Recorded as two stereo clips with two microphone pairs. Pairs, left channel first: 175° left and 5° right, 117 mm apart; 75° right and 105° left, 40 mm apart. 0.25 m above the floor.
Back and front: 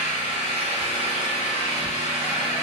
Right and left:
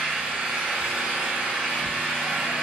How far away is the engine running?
About 1.1 m.